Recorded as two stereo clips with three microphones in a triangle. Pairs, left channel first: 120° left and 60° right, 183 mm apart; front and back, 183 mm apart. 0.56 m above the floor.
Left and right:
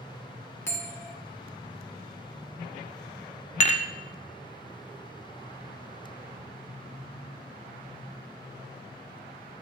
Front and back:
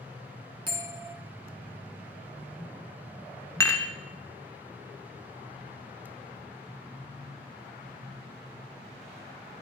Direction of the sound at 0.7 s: 175° left.